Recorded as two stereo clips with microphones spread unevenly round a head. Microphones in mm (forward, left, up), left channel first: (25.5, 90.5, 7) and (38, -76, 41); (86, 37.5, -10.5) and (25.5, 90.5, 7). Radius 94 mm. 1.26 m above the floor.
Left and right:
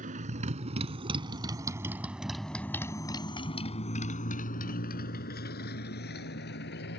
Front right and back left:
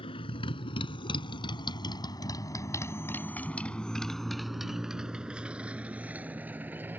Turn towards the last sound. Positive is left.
turn(degrees=75)